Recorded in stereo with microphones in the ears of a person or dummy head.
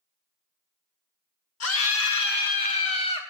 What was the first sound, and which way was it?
A scream, 75° left (ahead or behind).